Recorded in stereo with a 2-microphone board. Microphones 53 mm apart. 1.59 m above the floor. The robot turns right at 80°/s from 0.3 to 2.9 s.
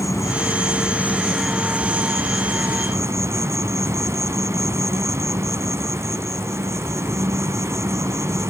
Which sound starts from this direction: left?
An insect, at 0.0 s.